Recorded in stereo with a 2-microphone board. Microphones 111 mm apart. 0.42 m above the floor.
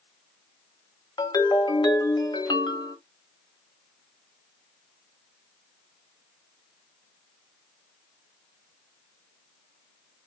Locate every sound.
1.2 s a ringtone: 45° left (ahead or behind), 1.0 m